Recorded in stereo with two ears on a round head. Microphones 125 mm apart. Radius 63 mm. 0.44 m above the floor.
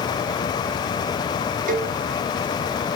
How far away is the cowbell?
About 1.4 m.